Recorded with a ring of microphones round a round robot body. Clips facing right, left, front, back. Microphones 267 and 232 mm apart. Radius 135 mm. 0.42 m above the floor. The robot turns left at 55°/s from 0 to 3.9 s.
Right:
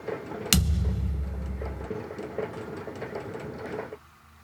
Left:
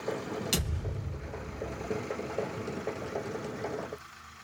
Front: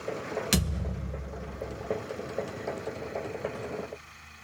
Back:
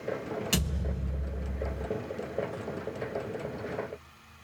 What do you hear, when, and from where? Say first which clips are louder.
0.5 s a thud: right 6 dB, front 2 dB; 70° right, 0.5 m; by 1.9 s 145° right, 0.5 m